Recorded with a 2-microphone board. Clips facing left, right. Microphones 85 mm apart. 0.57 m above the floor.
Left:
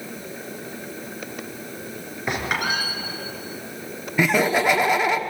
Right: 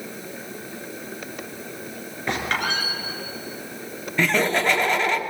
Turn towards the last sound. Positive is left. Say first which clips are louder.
# left 2 dB
turn(degrees=10)  # may be behind; listen again after turning